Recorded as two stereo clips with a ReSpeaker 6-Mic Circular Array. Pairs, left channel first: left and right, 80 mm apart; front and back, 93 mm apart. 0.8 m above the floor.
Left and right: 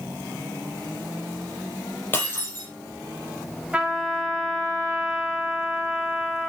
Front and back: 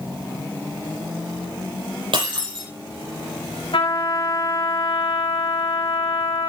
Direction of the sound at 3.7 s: 15° right.